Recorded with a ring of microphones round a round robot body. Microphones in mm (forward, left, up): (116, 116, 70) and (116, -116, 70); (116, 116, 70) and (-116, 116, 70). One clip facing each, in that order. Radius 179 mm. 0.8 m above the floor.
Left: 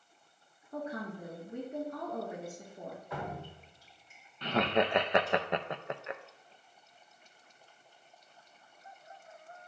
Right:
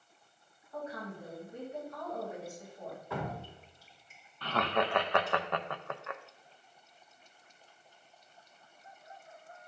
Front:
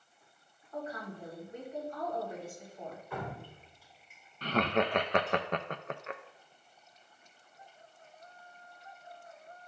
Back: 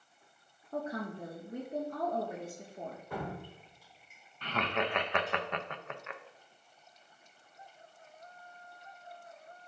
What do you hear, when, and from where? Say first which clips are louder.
0.7 s a woman speaking: left 3 dB, back 4 dB; 140° left, 1.8 m
3.1 s dripping: right 4 dB, back 2 dB; 120° right, 2 m
4.4 s laughter: left 3 dB, front 5 dB; 25° left, 0.6 m